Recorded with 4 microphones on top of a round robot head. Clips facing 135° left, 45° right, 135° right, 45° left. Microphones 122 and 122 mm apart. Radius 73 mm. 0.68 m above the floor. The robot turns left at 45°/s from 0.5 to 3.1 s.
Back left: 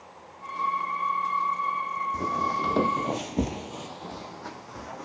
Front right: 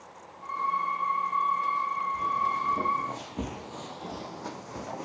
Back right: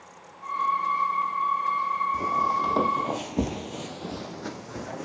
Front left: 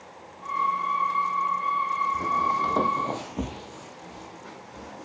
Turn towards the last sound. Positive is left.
turn(degrees=-110)